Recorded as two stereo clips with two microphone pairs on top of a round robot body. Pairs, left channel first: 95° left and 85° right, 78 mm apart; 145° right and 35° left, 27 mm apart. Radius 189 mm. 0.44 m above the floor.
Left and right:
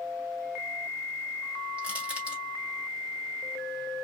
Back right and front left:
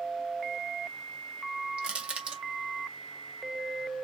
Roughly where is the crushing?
Ahead.